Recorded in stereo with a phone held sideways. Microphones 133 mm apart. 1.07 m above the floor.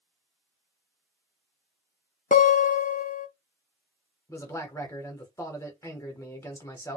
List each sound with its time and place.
2.3 s a guitar: 70° left (ahead or behind), 0.5 m
4.3 s a man speaking: 20° left (ahead or behind), 1.1 m